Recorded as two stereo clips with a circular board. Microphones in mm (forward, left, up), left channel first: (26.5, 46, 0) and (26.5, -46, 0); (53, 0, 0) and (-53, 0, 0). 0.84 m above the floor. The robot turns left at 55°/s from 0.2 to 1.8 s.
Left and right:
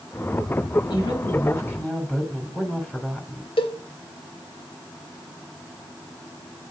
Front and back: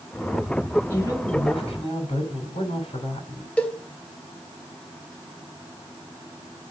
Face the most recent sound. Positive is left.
turn(degrees=80)